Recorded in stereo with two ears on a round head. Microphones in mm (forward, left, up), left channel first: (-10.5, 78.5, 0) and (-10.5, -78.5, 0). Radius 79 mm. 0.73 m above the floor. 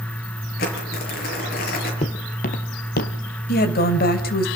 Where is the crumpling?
50° left (ahead or behind), 6 m.